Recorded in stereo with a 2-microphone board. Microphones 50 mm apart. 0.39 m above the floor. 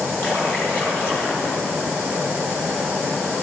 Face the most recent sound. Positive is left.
turn(degrees=45)  # may be behind; listen again after turning